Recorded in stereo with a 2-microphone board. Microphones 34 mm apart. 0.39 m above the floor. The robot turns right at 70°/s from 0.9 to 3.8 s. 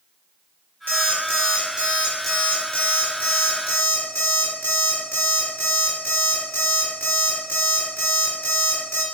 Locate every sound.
0.9 s an alarm clock: 90° right, 3.5 m; by 9.0 s 115° left, 3.5 m